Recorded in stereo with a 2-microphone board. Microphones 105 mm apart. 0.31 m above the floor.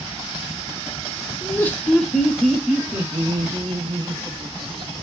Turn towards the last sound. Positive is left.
turn(degrees=-45)  # may be behind; listen again after turning